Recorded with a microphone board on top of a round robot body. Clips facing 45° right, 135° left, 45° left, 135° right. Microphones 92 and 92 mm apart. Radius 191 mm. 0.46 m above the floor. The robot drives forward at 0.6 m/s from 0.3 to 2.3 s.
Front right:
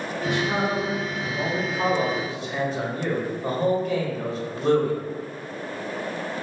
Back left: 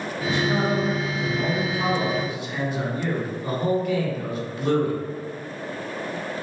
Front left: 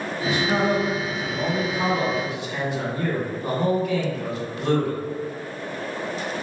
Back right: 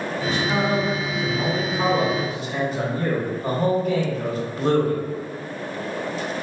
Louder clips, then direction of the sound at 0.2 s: Back left 2 dB, front left 1 dB; 35° right.